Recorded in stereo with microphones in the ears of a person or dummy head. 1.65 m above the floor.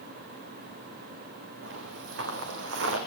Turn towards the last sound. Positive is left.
turn(degrees=-70)  # may be behind; listen again after turning